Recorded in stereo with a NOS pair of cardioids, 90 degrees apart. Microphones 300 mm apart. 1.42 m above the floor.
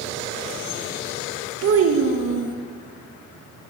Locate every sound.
1.6 s a child speaking: 50° right, 1.3 m